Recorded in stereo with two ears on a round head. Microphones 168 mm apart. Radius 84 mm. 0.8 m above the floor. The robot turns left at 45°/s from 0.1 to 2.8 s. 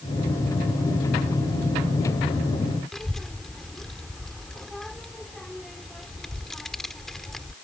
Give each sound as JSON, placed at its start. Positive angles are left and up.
{"t": 2.9, "sound": "a child speaking", "side_deg": 5}